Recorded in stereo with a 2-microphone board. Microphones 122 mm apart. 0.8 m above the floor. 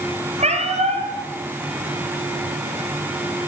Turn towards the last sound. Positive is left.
turn(degrees=-65)  # may be behind; listen again after turning